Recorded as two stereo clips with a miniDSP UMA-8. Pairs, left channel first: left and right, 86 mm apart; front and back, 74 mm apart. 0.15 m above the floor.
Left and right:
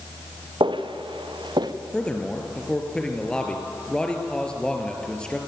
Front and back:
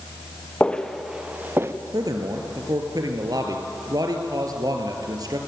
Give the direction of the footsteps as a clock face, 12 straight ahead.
2 o'clock.